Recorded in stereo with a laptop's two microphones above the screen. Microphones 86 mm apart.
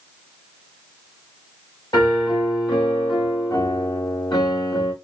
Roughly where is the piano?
Left.